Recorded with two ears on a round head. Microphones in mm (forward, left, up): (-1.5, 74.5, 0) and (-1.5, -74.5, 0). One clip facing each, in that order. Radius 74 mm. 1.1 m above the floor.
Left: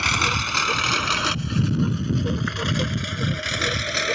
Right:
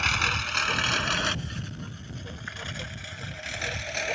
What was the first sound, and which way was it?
A lawn mower, 65° left (ahead or behind).